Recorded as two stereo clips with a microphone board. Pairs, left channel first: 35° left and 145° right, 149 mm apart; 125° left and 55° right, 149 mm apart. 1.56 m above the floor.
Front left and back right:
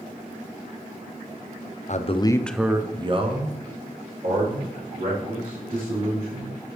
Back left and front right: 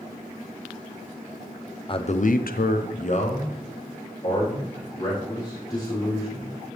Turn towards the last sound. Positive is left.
turn(degrees=-170)